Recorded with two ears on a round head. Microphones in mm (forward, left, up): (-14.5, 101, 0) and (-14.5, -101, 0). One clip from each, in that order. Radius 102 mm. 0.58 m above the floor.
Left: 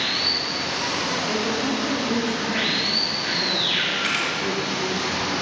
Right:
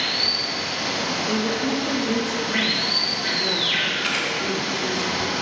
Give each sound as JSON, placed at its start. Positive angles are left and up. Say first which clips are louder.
{"t": 0.0, "sound": "running water", "louder": "right 1 dB", "side_deg": -40, "distance_m": 2.0}
{"t": 1.3, "sound": "a woman speaking", "louder": "even", "side_deg": -15, "distance_m": 0.6}
{"t": 4.0, "sound": "a camera shutter", "louder": "even", "side_deg": 0, "distance_m": 1.3}